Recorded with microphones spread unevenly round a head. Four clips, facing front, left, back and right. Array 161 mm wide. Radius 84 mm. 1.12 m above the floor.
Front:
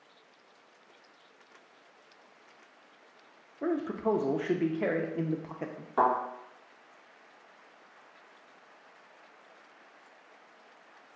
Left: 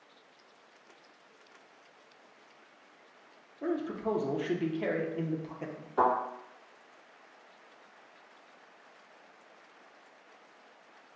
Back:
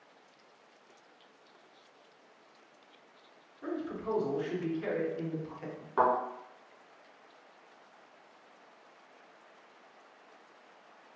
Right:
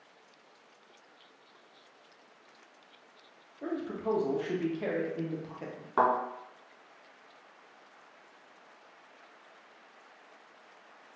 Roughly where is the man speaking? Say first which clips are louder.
Left 1 dB, front 6 dB; ahead.